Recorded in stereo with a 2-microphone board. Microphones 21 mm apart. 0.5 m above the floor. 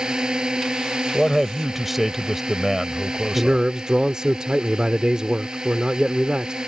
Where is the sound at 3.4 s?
35° right (ahead or behind).